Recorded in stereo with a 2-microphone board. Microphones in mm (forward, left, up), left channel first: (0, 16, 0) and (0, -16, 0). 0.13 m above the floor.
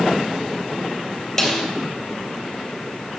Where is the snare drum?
5° left (ahead or behind), 3 m.